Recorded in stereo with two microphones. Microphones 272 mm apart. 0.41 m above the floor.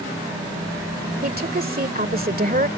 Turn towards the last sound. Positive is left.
turn(degrees=-35)  # may be behind; listen again after turning